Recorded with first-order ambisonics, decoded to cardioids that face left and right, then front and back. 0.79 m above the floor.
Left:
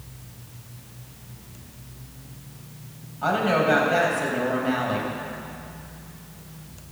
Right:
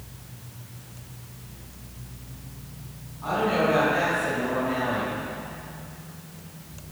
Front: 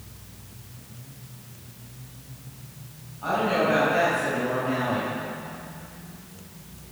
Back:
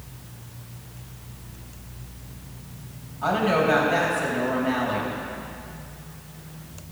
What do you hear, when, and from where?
3.2 s a woman speaking: 120° left, 4 m